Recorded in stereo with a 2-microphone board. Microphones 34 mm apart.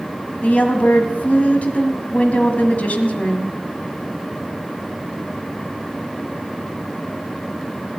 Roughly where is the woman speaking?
Left.